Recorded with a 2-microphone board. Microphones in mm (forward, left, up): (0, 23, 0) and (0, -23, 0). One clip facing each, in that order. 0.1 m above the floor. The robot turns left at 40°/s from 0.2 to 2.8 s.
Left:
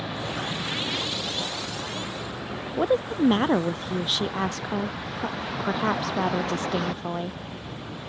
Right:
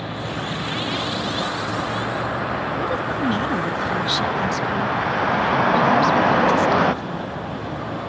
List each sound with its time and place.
0.0 s a vehicle: 15° right; by 8.1 s 120° right
2.8 s a woman speaking: 35° left (ahead or behind)